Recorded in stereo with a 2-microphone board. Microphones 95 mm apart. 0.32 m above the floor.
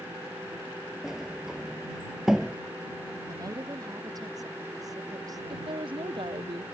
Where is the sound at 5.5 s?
65° right (ahead or behind).